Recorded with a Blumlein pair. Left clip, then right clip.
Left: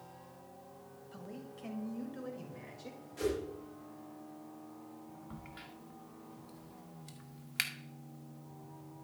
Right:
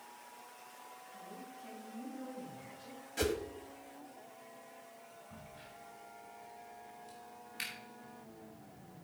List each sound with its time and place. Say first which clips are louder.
1.1 s a man speaking: left 3 dB; 35° left, 1.7 m; by 3.0 s 65° left, 3.5 m
3.2 s a whoosh: right 1 dB; 60° right, 1.2 m
5.3 s a crack: left 2 dB; 50° left, 1.4 m